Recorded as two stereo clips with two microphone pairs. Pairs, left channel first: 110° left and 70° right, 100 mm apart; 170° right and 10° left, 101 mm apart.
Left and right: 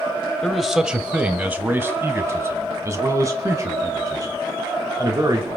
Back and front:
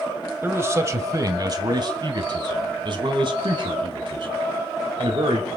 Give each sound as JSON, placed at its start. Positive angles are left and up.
{"t": 0.4, "sound": "a man speaking", "azimuth_deg": 20, "distance_m": 1.3}